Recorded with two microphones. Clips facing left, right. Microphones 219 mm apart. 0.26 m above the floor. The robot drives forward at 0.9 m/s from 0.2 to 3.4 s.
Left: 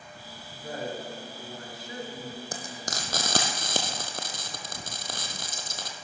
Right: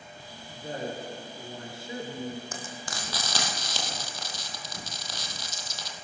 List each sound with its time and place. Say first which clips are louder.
0.5 s a woman speaking: even; 20° right (ahead or behind), 4.5 m; by 2.5 s 35° right (ahead or behind), 3 m
2.5 s frying: left 2 dB; 40° left (ahead or behind), 2 m; by 6.0 s 55° left (ahead or behind), 1.5 m